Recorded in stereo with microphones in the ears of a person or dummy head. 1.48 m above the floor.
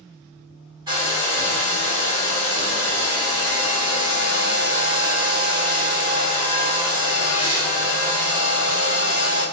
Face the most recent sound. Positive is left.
turn(degrees=-20)  # may be behind; listen again after turning